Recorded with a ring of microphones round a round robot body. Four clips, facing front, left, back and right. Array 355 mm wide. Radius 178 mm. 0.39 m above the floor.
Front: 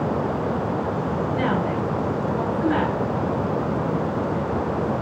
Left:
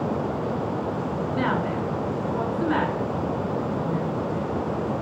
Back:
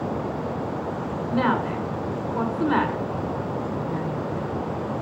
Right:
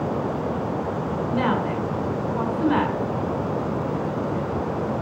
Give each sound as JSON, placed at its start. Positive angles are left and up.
{"t": 1.3, "sound": "a woman speaking", "azimuth_deg": -155, "distance_m": 5.5}